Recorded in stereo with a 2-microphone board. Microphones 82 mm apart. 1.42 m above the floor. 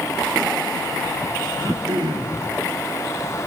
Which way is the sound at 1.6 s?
65° right (ahead or behind).